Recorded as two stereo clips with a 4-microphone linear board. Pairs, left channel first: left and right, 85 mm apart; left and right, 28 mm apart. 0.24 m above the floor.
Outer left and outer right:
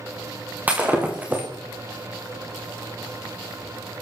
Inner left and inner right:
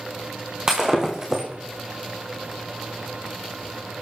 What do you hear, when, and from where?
0.7 s breaking glass: 20° right (ahead or behind), 3 m